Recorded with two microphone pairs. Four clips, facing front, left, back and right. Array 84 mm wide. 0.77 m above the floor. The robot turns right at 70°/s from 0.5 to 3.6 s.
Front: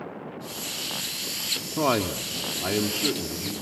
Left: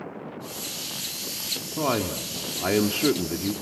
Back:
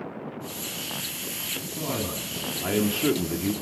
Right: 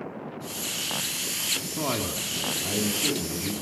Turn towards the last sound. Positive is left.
turn(degrees=145)